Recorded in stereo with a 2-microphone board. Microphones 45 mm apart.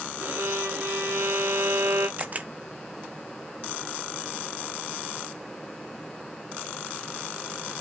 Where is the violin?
60° right (ahead or behind), 3.5 m.